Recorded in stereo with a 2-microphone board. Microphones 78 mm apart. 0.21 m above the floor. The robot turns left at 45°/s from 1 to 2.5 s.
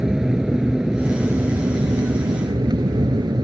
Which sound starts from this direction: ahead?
An aircraft, at 0.0 s.